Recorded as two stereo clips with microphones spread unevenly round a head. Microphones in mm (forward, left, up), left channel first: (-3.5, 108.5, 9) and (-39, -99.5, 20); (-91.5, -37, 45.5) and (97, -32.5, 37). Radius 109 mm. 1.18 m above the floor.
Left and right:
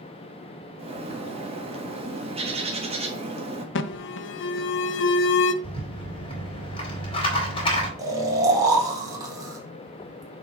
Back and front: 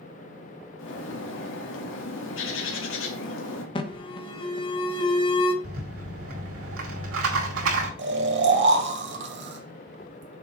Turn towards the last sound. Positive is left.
turn(degrees=-25)